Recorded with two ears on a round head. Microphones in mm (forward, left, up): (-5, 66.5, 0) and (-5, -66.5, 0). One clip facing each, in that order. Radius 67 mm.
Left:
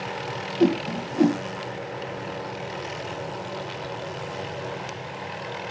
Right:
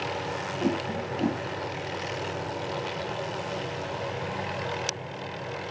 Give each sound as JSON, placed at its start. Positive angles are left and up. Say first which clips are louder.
{"t": 0.6, "sound": "a whoosh", "louder": "left 8 dB", "side_deg": 75, "distance_m": 0.6}